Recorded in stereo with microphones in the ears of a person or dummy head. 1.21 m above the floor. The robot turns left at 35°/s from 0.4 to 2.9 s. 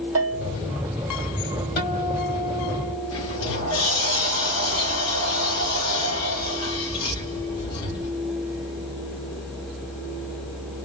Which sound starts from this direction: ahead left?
A guitar, at 1.8 s.